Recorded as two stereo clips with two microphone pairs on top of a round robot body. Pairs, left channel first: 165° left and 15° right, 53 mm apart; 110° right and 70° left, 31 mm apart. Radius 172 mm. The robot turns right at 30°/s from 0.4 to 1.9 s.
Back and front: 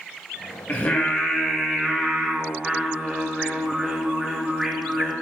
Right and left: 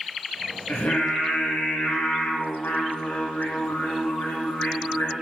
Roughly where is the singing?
Behind right.